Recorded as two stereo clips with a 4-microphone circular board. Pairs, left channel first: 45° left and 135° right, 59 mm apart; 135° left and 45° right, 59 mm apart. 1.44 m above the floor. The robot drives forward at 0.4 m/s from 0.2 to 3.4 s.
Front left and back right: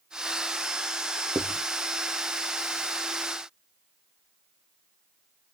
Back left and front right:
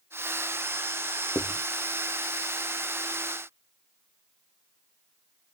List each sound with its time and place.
1.4 s writing: straight behind, 0.8 m